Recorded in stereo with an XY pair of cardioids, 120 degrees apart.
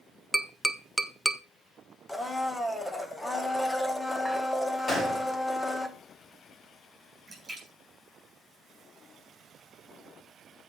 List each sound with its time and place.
0.3 s tapping: straight ahead, 0.8 m
2.1 s a blender: 10° left, 1.3 m
4.9 s a gunshot: 30° left, 5 m
7.3 s a splash: 15° right, 7.5 m